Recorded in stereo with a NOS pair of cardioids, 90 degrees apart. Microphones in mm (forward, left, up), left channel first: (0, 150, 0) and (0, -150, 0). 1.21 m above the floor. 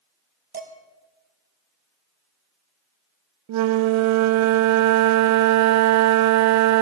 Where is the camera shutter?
No camera shutter in this recording.